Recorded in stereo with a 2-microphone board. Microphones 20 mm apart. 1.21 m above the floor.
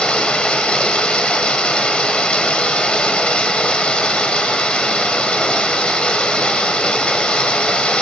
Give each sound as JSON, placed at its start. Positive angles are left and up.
{"t": 0.0, "sound": "running water", "side_deg": 65, "distance_m": 2.0}